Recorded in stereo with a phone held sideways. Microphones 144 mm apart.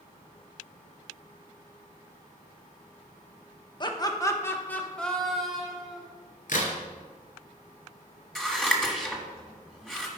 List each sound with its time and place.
3.8 s laughter: 30° left (ahead or behind), 1.0 m; by 6.0 s 5° right (ahead or behind), 2.0 m
6.5 s a crack: 65° left (ahead or behind), 2.5 m
8.3 s scissors: 5° left (ahead or behind), 1.5 m